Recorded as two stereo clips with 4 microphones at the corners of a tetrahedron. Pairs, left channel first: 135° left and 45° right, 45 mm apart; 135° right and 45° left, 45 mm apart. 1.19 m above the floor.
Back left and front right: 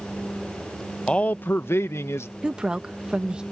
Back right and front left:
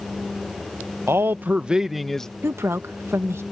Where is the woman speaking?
25° left.